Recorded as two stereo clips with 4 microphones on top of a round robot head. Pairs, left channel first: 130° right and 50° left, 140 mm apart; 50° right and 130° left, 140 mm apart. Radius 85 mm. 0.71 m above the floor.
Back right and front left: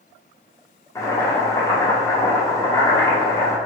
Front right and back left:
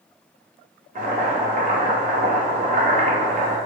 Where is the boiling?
165° left, 0.9 m.